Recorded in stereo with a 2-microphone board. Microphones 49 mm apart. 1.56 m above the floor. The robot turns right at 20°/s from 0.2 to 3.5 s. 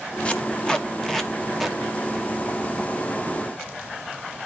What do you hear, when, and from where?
0.2 s tape being pulled: 25° left (ahead or behind), 1.1 m; by 1.8 s 5° right (ahead or behind), 1.1 m